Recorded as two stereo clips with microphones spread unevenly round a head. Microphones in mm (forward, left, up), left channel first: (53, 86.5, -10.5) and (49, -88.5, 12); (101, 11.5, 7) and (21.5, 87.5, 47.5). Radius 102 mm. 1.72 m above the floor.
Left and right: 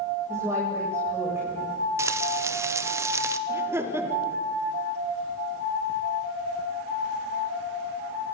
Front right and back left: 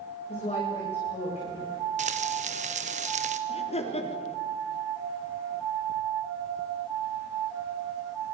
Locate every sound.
0.3 s a woman speaking: 15° right, 9 m
2.0 s frying: 170° right, 1.0 m
3.5 s laughter: 15° right, 4.5 m